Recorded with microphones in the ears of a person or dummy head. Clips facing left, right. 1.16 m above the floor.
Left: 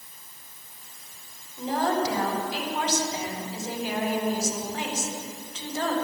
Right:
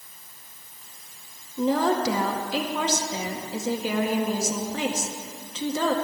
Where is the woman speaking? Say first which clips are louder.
Right 3 dB; 75° right (ahead or behind), 1.7 m.